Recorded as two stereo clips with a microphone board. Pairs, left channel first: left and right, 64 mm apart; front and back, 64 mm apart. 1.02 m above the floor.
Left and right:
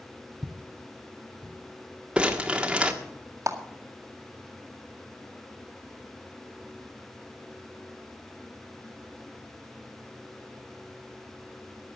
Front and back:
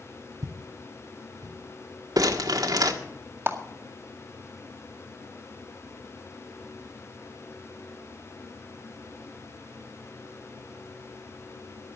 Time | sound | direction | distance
0.4 | footsteps | straight behind | 1.7 m
2.2 | crumpling | 165° right | 1.6 m
3.5 | a clap | 125° right | 1.9 m